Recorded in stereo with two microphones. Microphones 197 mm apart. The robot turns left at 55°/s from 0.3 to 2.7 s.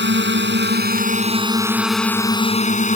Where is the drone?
90° right; by 3.0 s 135° left.